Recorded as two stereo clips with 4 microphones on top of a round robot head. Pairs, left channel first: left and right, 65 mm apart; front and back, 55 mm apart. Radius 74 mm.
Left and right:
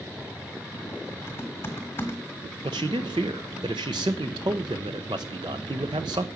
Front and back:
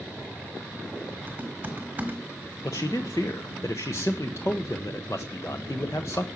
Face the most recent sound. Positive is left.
turn(degrees=-60)